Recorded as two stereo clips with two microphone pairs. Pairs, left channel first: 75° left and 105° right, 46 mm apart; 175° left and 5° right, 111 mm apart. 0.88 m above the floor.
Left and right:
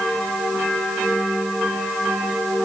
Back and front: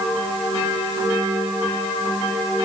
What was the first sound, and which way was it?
Only background noise.